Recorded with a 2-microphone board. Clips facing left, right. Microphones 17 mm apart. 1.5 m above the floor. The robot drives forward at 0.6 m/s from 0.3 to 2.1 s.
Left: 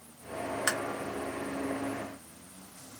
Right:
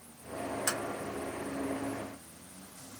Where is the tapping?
40° left (ahead or behind), 0.8 m.